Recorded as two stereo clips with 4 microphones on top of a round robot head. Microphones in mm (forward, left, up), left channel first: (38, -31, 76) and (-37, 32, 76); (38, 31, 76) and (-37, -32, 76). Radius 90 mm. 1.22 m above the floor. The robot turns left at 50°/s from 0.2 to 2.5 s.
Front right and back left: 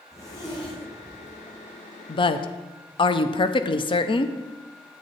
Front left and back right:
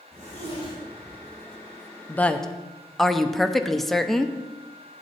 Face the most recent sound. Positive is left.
turn(degrees=-50)